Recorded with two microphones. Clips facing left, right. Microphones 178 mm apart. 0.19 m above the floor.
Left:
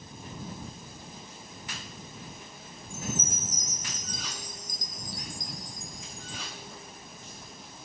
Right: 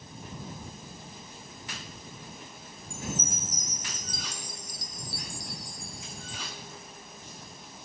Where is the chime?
10° right (ahead or behind).